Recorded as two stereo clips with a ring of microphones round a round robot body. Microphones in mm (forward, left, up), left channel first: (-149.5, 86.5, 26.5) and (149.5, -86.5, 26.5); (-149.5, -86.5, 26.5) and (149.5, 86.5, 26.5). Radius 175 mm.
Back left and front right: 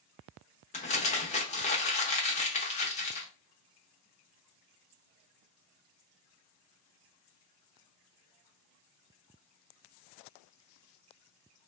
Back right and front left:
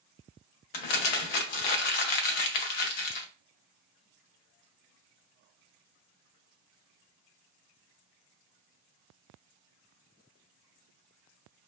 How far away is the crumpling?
About 0.6 m.